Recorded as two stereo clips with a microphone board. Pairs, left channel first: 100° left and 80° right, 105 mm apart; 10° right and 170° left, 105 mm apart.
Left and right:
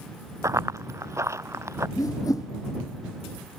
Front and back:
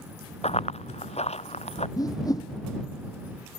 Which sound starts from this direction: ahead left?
A whoosh, at 2.0 s.